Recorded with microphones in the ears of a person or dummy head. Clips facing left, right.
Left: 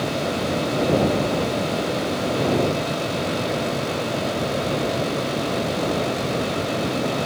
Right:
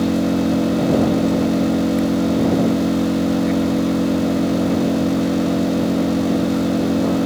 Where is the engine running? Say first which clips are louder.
Right 7 dB; 50° right (ahead or behind).